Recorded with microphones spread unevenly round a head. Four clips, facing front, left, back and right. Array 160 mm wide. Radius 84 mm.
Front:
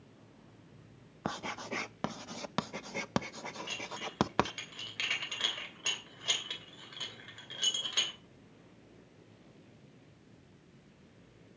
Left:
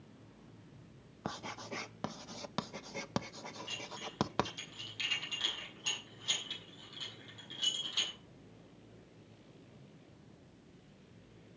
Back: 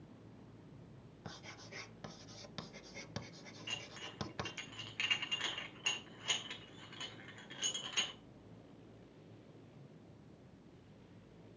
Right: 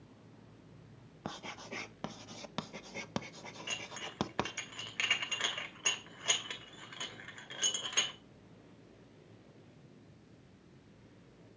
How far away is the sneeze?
No sneeze in this recording.